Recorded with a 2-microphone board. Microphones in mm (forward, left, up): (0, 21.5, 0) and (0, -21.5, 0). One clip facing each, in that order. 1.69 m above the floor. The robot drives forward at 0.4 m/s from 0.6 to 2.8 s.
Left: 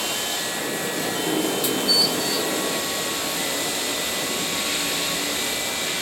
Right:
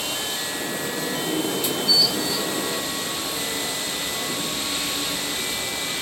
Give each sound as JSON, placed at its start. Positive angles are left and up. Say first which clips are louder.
{"t": 0.0, "sound": "running water", "louder": "left 1 dB", "side_deg": 70, "distance_m": 7.0}